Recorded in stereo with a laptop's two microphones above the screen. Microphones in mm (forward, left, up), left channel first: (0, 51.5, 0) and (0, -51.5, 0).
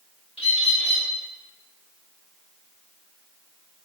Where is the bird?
75° left (ahead or behind), 2 m.